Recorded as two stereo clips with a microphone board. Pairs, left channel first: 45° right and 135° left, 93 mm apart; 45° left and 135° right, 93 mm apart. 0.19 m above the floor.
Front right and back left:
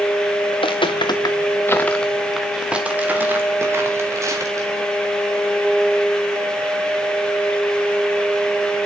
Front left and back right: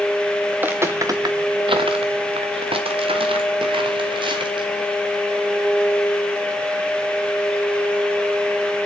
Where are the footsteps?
60° right, 1.2 m; by 4.9 s 170° right, 3 m.